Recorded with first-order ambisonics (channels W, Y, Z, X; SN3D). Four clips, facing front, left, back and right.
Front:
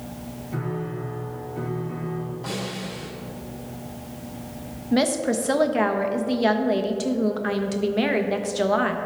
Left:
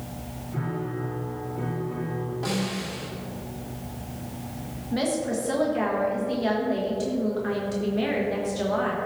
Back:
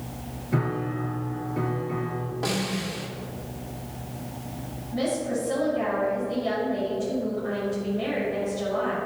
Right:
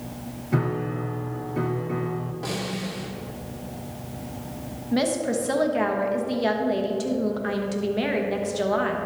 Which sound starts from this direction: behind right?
A piano, at 0.5 s.